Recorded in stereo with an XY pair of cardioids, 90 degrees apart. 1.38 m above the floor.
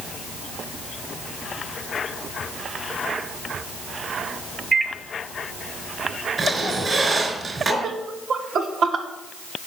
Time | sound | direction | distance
4.7 | a microwave | 35° right | 0.8 m
6.4 | a squeak | 40° right | 3.5 m
7.8 | laughter | 65° right | 2 m